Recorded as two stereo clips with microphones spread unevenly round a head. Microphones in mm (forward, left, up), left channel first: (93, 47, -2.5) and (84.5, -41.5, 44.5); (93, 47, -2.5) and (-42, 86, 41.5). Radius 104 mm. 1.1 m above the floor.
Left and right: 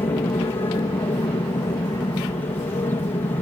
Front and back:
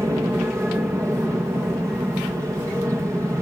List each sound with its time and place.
0.0 s an aircraft: 85° left